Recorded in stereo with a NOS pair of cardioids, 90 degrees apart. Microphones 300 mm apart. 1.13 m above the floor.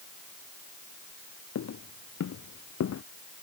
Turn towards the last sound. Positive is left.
turn(degrees=50)